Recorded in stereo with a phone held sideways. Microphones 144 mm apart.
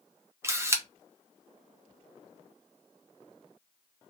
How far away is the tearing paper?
No tearing paper in this recording.